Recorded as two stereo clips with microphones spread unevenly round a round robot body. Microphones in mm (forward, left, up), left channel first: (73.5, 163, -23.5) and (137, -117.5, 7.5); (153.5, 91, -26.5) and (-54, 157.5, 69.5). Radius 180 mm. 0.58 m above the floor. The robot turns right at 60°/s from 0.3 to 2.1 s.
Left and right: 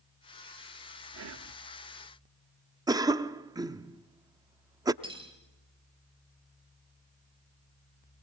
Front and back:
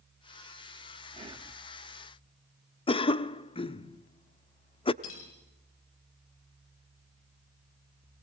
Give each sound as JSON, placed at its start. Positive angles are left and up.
{"t": 1.1, "sound": "whispering", "azimuth_deg": -115, "distance_m": 1.1}
{"t": 2.9, "sound": "a cough", "azimuth_deg": 0, "distance_m": 0.8}
{"t": 5.0, "sound": "cutlery clinking", "azimuth_deg": -5, "distance_m": 6.0}